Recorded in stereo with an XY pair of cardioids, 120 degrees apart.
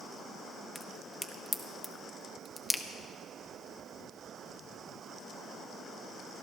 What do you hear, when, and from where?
0.8 s a crack: 20° left, 1.0 m